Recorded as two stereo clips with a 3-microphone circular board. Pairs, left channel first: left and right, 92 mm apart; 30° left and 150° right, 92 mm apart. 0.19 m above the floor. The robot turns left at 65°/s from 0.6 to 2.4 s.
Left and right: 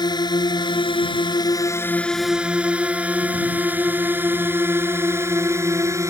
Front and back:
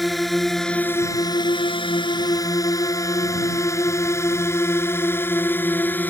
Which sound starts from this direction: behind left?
A drone, at 0.0 s.